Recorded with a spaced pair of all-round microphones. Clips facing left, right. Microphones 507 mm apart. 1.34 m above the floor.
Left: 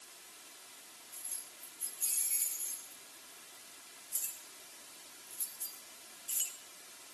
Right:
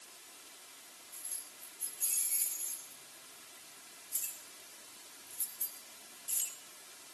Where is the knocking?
I don't hear knocking.